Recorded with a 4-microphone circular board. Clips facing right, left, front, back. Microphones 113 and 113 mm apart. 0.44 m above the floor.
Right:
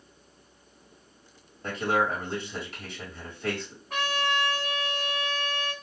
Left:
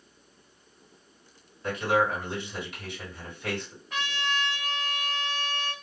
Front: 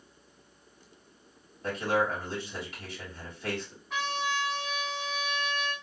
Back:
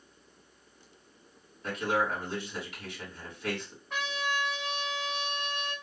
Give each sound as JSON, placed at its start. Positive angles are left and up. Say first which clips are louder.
{"t": 1.6, "sound": "a man speaking", "louder": "left 1 dB, front 2 dB", "azimuth_deg": -45, "distance_m": 2.5}
{"t": 3.9, "sound": "a trumpet", "louder": "right 4 dB, front 2 dB", "azimuth_deg": -85, "distance_m": 1.6}